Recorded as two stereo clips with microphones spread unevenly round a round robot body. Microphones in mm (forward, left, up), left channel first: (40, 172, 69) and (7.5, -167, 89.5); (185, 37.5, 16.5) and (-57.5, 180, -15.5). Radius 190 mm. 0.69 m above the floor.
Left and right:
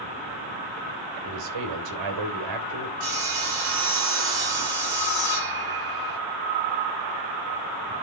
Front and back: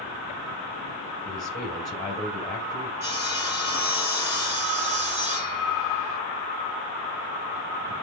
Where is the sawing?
135° right, 6.5 m.